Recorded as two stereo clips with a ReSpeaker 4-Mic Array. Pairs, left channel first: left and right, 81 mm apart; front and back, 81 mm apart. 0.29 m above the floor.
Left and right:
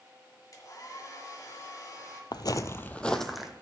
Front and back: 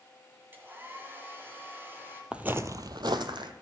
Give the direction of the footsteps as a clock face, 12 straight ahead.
9 o'clock.